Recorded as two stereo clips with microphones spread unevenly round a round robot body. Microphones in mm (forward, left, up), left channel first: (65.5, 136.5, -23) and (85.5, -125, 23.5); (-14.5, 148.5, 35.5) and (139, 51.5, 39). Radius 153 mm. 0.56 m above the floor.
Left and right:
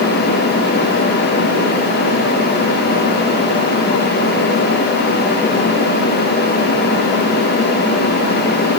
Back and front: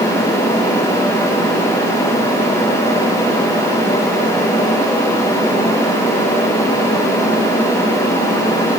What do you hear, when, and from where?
Only background noise.